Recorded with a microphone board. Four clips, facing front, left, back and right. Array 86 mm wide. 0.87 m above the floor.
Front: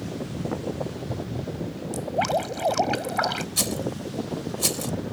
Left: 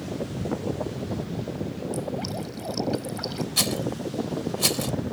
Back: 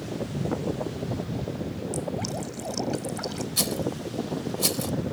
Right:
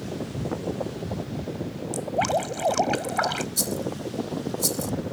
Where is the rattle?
85° left.